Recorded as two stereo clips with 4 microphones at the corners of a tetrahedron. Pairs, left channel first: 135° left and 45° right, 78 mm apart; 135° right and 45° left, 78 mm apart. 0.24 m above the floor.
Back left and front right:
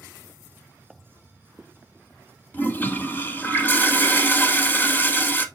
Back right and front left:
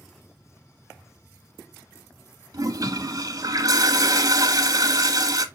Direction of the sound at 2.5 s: 75° left.